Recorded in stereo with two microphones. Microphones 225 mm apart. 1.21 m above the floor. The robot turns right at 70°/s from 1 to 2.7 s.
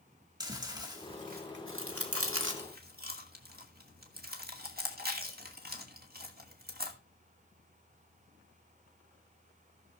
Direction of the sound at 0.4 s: 20° right (ahead or behind).